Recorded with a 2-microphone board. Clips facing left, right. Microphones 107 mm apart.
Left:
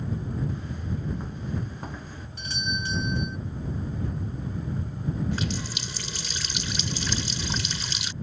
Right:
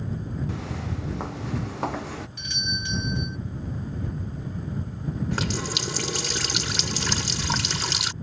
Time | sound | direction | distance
0.5 | footsteps | 80° right | ?
2.4 | a doorbell | 35° left (ahead or behind) | ?
5.3 | a running tap | 75° right (ahead or behind) | ?